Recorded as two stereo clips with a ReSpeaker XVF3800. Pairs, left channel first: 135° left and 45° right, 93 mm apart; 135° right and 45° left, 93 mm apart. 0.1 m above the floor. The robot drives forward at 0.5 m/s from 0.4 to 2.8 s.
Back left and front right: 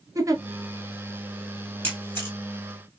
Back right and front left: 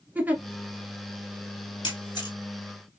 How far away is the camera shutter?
About 2.5 m.